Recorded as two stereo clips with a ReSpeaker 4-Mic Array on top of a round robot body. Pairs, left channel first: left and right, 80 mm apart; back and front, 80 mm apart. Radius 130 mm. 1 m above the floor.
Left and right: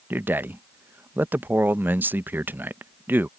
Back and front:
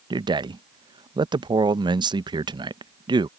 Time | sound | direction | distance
0.1 | a man speaking | 25° right | ?